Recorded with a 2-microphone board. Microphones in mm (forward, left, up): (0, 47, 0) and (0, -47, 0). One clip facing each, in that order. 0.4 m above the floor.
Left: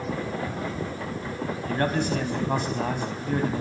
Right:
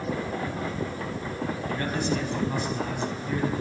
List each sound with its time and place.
1.7 s a man speaking: 50° left (ahead or behind), 3.5 m